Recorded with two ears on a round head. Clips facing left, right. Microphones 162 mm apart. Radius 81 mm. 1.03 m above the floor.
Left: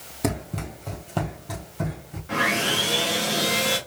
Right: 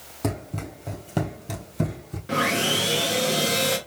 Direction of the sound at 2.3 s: 45° right (ahead or behind).